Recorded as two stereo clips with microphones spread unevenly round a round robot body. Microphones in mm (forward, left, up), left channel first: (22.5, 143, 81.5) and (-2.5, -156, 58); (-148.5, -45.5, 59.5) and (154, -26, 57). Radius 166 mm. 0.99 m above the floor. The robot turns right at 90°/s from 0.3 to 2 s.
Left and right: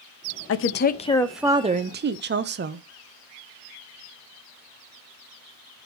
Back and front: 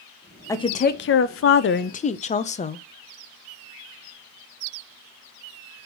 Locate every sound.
0.5 s a woman speaking: 105° left, 0.6 m; by 2.8 s 120° right, 0.6 m